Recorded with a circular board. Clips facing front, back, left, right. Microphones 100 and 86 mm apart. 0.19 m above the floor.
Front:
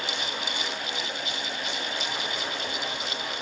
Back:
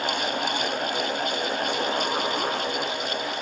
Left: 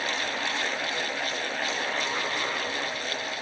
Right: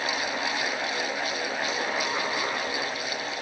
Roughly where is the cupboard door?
I don't hear a cupboard door.